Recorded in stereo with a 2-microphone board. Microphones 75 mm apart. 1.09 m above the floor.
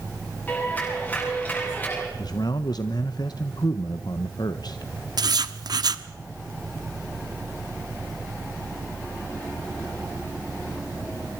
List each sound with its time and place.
0.5 s a clap: 25° left (ahead or behind), 9.5 m
2.2 s a man speaking: 65° left (ahead or behind), 0.8 m
5.2 s writing: 65° right (ahead or behind), 1.0 m